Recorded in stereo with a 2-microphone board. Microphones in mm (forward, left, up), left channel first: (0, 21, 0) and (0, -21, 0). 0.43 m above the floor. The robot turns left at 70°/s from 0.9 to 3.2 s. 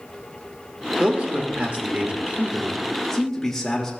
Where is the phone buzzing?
No phone buzzing in this recording.